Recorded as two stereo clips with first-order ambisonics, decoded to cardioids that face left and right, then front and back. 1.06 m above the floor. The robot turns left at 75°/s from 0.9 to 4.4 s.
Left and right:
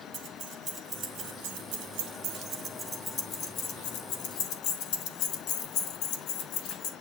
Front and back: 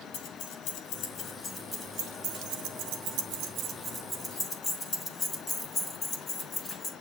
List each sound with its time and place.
0.1 s keys jangling: 30° right, 1.9 m; by 6.9 s 65° left, 1.9 m